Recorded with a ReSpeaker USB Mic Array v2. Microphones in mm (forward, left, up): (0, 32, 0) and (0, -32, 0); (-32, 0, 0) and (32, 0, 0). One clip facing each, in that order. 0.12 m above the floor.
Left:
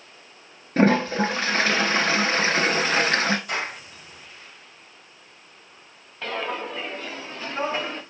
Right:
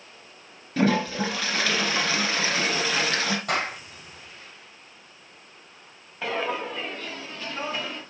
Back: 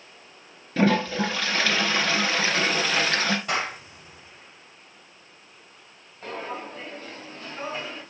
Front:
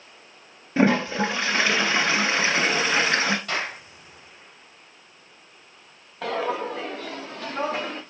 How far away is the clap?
About 4 m.